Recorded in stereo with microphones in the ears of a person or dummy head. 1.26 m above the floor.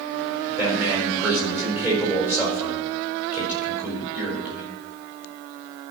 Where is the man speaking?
5° right (ahead or behind), 4 m.